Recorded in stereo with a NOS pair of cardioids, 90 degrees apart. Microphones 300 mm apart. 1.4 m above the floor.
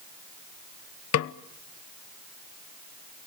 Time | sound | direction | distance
1.1 | a snare drum | 55° left | 0.9 m